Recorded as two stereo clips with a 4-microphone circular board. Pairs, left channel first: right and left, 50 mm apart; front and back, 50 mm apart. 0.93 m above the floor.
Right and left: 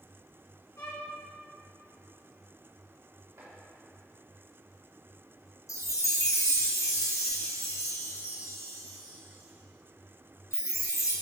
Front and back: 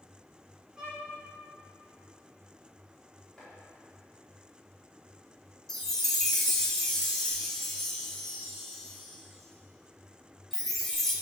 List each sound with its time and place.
0.8 s a violin: 100° right, 2 m
3.4 s chopping: 85° left, 3 m
5.7 s a chime: 80° right, 1.0 m